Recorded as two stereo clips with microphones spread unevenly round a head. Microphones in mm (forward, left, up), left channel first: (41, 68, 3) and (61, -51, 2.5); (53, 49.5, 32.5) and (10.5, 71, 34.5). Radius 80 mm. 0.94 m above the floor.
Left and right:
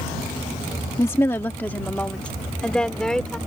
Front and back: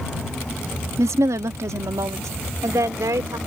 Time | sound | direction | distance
1.0 | a woman speaking | 175° left | ?